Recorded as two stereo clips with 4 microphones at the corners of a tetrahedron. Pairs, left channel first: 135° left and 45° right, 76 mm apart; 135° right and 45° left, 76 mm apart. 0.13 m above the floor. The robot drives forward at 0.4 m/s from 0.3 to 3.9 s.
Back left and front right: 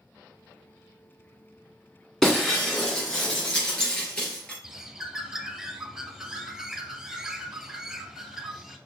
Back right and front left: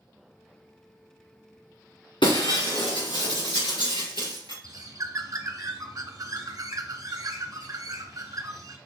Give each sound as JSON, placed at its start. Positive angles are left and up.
{"t": 2.2, "sound": "breaking glass", "azimuth_deg": -140, "distance_m": 2.5}
{"t": 4.6, "sound": "a bird", "azimuth_deg": 40, "distance_m": 0.7}